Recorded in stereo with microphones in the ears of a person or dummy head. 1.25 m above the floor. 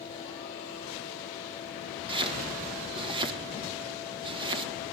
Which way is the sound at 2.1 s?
35° right (ahead or behind).